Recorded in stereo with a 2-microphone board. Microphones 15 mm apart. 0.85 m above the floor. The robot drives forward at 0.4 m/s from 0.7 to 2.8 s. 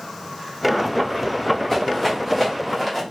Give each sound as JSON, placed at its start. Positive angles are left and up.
{"t": 1.7, "sound": "a rattle", "side_deg": 5, "distance_m": 1.0}